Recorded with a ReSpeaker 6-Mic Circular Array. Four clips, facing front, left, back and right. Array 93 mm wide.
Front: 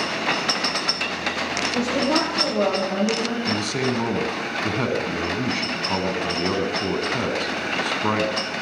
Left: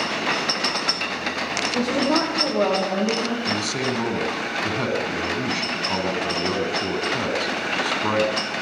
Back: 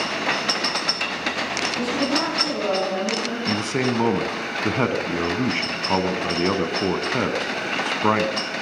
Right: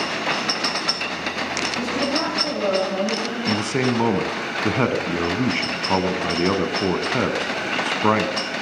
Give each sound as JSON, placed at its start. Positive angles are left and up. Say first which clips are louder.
{"t": 1.7, "sound": "a woman speaking", "louder": "left 4 dB, front 2 dB", "azimuth_deg": 55, "distance_m": 9.5}
{"t": 3.5, "sound": "a man speaking", "louder": "right 3 dB, back 1 dB", "azimuth_deg": -125, "distance_m": 1.3}